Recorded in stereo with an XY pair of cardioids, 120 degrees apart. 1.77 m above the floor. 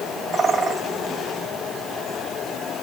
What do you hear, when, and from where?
0.3 s a bird: 35° right, 1.4 m